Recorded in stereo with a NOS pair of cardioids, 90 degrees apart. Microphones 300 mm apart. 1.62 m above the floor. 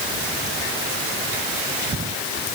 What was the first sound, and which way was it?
Only background noise.